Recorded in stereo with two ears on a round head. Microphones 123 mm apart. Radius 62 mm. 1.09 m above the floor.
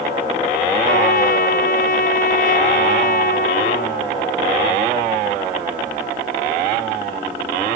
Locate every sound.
0.9 s a trumpet: 65° left (ahead or behind)